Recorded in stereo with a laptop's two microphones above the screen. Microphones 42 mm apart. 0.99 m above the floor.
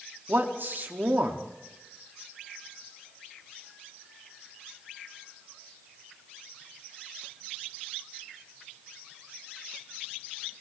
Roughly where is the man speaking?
Right.